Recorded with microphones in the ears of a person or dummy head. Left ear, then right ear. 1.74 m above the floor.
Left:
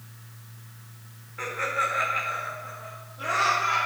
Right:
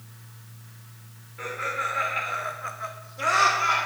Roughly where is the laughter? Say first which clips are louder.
Left 2 dB; left.